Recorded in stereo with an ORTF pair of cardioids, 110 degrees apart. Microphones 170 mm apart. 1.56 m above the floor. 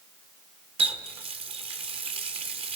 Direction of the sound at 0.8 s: 35° right.